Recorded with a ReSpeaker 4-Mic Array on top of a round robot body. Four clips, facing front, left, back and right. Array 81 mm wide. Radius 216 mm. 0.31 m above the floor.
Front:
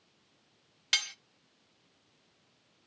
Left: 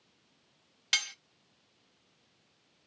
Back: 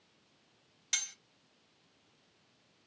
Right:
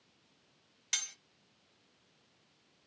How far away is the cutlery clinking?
About 0.9 m.